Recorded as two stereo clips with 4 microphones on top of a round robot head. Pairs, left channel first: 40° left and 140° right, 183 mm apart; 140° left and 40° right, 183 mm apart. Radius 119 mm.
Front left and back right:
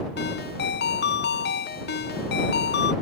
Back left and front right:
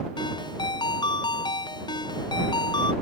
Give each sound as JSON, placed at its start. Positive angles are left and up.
{"t": 0.2, "sound": "a ringtone", "azimuth_deg": 70}